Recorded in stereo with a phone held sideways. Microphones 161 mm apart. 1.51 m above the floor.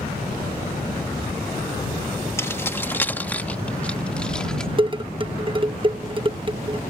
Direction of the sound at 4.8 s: 30° right (ahead or behind).